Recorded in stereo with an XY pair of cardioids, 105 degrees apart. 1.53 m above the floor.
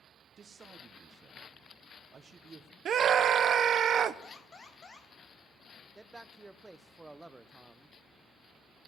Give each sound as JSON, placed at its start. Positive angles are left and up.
{"t": 0.4, "sound": "a man speaking", "azimuth_deg": -35, "distance_m": 1.1}
{"t": 2.9, "sound": "a scream", "azimuth_deg": -55, "distance_m": 1.0}
{"t": 4.2, "sound": "an alarm", "azimuth_deg": 40, "distance_m": 2.5}
{"t": 6.0, "sound": "a man speaking", "azimuth_deg": -10, "distance_m": 0.7}